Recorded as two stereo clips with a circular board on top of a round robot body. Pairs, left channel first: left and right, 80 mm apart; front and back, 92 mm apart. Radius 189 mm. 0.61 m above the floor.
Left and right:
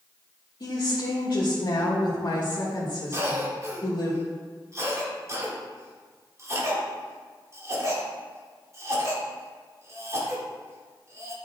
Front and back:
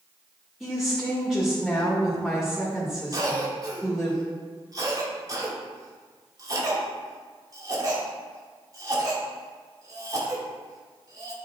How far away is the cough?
About 2 m.